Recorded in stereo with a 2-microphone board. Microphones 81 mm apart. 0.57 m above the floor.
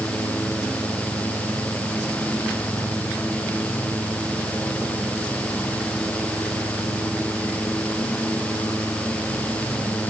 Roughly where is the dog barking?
I don't hear a dog barking.